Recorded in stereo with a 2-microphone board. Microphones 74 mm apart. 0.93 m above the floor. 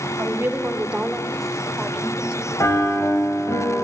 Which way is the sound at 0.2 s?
35° right (ahead or behind).